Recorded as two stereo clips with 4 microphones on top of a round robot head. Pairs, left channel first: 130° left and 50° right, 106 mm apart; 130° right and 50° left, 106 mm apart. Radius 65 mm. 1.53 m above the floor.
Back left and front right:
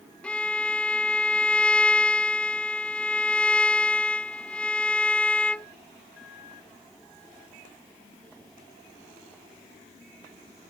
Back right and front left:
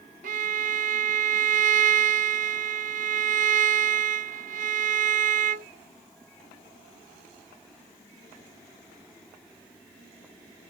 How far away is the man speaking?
I don't hear a man speaking.